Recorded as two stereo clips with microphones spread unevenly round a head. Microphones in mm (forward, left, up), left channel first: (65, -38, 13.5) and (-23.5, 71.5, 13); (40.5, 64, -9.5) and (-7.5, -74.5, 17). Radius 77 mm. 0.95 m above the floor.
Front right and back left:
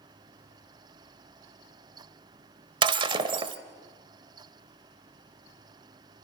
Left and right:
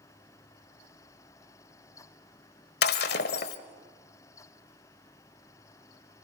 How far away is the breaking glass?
About 1.0 m.